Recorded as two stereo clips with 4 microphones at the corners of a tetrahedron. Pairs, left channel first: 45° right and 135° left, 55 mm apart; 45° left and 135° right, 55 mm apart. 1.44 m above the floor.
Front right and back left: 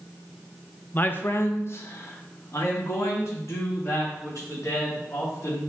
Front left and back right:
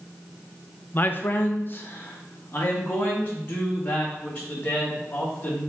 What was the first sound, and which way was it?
A man speaking, 5° left.